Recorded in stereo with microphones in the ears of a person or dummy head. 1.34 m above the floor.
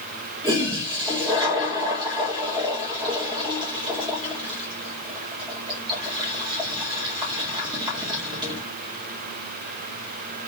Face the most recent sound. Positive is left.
turn(degrees=-20)  # may be behind; listen again after turning